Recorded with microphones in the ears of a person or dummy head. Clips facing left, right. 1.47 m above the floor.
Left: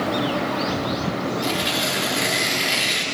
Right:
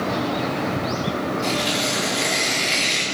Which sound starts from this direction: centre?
Tearing paper, at 1.4 s.